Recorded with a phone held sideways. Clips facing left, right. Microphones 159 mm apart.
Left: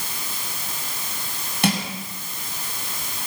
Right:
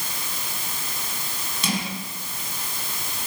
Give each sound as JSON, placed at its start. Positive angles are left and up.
{"t": 1.6, "sound": "crushing", "side_deg": 65, "distance_m": 8.0}